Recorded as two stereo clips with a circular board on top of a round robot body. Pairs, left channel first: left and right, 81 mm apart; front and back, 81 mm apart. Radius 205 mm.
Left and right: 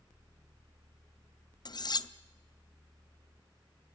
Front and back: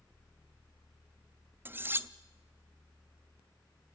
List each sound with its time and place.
1.6 s cutlery clinking: 115° left, 0.9 m